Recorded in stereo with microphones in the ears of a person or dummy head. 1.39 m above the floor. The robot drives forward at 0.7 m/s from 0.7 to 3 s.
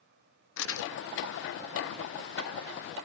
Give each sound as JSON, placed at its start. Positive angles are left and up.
{"t": 0.6, "sound": "crumpling", "side_deg": 65, "distance_m": 0.9}